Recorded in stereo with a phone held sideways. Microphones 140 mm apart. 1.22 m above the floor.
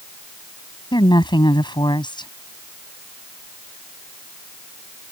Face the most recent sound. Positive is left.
turn(degrees=35)  # may be behind; listen again after turning